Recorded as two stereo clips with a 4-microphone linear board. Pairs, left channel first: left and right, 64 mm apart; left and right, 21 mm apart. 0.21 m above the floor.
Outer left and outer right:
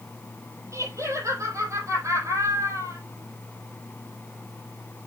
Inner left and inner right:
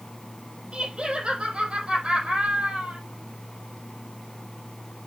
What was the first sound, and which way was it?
Laughter, 55° right (ahead or behind).